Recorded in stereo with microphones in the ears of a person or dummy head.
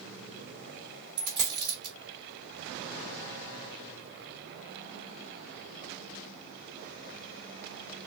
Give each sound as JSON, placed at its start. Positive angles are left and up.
{"t": 1.2, "sound": "a dropped coin", "side_deg": -35, "distance_m": 1.5}